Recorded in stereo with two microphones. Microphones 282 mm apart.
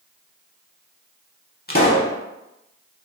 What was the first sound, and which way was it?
A pop, 35° left (ahead or behind).